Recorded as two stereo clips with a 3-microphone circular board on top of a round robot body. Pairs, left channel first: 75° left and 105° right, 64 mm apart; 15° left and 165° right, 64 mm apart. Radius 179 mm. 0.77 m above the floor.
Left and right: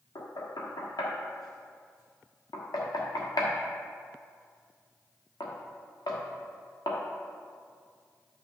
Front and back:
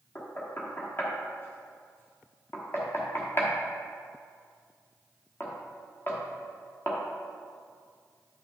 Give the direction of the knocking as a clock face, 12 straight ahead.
10 o'clock.